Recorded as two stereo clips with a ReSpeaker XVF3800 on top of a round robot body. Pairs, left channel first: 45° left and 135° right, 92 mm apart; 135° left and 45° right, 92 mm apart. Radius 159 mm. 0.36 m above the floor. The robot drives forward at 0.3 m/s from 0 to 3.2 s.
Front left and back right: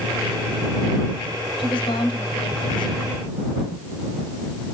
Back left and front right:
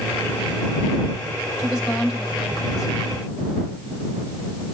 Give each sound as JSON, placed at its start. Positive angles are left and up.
{"t": 1.6, "sound": "a woman speaking", "azimuth_deg": 75, "distance_m": 2.5}